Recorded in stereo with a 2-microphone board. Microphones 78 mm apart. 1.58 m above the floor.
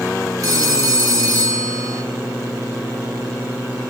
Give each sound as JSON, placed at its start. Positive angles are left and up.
{"t": 0.4, "sound": "a phone ringing", "side_deg": -50, "distance_m": 2.0}